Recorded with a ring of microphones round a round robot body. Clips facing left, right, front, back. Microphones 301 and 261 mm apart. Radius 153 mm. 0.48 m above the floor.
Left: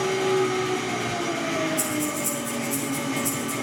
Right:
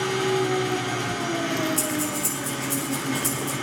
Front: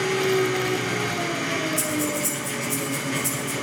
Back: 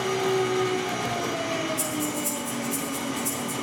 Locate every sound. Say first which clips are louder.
0.0 s an engine running: left 1 dB, front 3 dB; 30° right, 5.5 m
1.8 s breathing: even, front 3 dB; 60° right, 6 m